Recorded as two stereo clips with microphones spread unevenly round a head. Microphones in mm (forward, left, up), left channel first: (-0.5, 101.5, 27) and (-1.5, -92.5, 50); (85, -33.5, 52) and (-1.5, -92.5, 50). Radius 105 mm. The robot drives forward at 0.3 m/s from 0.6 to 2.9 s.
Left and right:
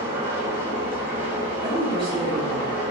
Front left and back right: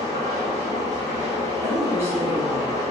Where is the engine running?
165° right, 1.4 m; by 2.9 s 170° right, 2 m.